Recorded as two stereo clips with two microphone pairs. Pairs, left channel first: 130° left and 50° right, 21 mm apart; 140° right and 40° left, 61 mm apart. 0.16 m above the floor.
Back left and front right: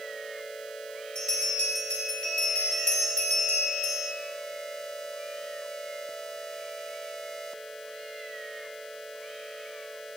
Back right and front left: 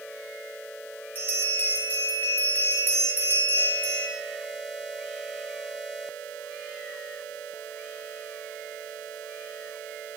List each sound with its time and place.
1.1 s a bell: 170° left, 3 m